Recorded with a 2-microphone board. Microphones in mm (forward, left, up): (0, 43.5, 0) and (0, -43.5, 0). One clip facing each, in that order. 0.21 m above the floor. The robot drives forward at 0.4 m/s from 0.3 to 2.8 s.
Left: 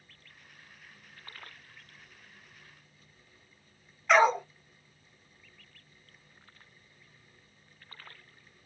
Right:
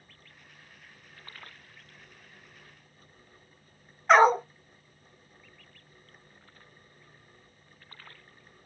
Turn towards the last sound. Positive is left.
turn(degrees=-35)  # may be behind; listen again after turning